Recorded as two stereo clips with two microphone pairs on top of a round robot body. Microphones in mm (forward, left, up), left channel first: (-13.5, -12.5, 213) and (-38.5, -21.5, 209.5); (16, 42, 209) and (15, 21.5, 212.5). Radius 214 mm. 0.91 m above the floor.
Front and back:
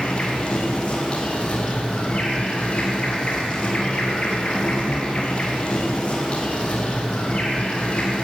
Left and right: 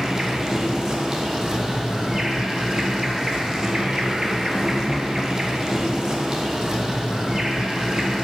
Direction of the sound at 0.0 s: 25° right.